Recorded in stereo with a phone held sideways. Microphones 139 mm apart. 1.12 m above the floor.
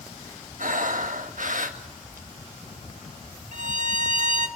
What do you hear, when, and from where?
0.6 s breathing: 70° right (ahead or behind), 1.9 m
3.5 s a violin: 60° right (ahead or behind), 1.6 m